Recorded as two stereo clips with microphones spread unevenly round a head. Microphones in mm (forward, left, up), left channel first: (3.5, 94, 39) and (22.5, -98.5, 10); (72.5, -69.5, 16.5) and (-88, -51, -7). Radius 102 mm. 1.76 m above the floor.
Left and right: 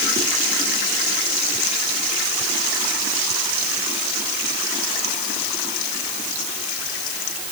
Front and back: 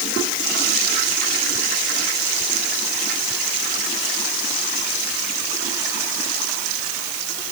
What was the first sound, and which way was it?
Only background noise.